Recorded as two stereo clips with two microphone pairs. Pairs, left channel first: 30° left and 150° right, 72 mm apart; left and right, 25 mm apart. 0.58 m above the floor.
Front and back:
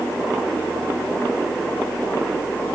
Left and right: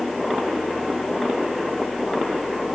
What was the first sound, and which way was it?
Only background noise.